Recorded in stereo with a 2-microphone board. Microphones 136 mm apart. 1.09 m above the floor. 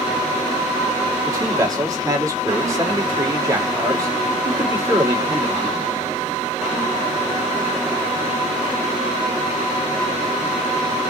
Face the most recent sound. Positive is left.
turn(degrees=-25)  # may be behind; listen again after turning